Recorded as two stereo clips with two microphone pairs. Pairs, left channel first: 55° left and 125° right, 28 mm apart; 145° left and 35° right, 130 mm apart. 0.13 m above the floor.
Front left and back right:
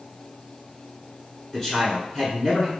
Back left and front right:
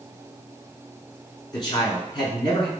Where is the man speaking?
115° left, 1.8 m.